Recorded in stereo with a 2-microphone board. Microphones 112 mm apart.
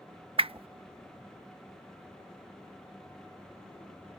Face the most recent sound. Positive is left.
turn(degrees=-55)  # may be behind; listen again after turning